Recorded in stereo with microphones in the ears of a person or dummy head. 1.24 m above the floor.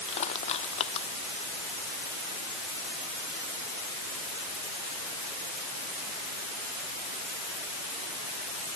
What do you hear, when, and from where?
0.1 s crushing: 25° left (ahead or behind)